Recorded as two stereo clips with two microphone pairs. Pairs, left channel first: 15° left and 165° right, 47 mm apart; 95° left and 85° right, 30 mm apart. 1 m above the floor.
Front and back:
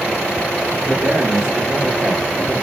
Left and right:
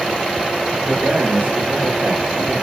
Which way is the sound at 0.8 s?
90° right.